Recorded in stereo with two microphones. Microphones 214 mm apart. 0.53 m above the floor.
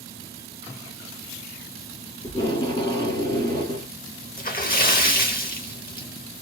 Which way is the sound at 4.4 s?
45° left (ahead or behind).